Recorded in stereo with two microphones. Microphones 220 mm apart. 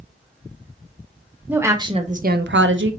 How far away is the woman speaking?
About 0.8 m.